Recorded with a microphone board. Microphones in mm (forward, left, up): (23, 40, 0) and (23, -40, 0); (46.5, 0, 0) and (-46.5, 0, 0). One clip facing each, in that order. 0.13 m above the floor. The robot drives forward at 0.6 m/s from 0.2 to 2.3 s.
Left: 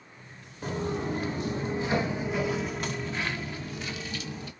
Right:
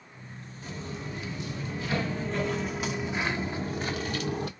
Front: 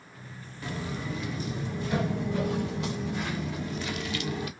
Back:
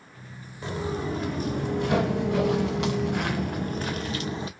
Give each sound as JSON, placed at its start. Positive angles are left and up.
{"t": 0.6, "sound": "footsteps", "azimuth_deg": 115, "distance_m": 1.3}